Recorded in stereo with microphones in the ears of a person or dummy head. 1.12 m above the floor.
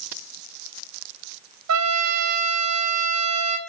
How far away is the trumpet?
About 1.1 m.